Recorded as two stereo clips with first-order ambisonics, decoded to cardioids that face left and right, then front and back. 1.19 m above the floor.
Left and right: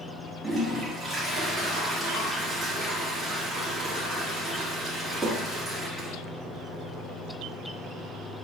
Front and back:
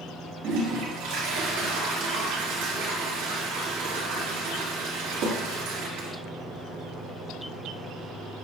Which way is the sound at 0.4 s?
165° right.